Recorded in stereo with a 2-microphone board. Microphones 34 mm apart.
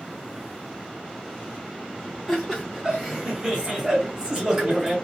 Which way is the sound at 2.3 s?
10° right (ahead or behind).